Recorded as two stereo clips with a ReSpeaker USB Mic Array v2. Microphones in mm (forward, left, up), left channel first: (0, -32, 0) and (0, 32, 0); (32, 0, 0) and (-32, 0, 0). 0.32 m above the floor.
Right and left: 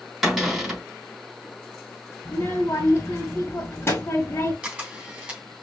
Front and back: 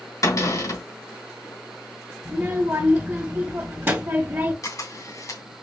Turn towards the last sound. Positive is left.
turn(degrees=20)